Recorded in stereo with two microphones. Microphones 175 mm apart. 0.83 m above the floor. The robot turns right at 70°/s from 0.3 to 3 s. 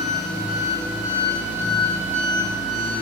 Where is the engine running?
105° left, 3.5 m; by 3.0 s 65° right, 3.5 m.